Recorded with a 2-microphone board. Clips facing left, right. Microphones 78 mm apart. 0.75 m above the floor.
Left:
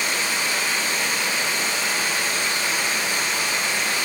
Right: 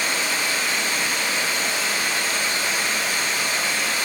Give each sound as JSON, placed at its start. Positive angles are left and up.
{"t": 0.0, "sound": "running water", "side_deg": 25, "distance_m": 1.3}